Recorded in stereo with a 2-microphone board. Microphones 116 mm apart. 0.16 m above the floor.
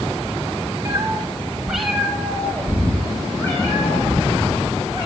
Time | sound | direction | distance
0.8 | a cat meowing | 30° right (ahead or behind) | 1.3 m